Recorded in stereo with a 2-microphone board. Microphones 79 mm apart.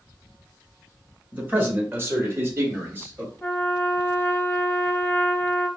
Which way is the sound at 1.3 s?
25° right (ahead or behind).